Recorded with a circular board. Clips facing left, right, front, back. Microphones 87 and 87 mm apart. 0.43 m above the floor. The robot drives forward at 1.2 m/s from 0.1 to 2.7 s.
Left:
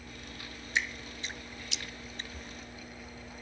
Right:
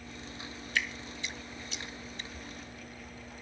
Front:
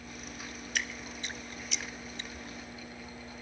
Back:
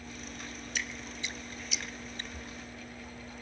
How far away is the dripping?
About 1.3 m.